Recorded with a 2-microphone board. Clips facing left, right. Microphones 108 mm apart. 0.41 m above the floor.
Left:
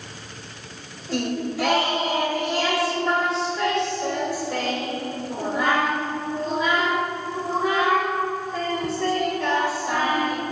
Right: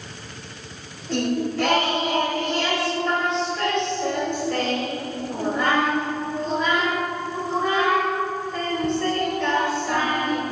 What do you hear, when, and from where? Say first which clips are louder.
1.1 s singing: right 2 dB; 5° left (ahead or behind), 1.7 m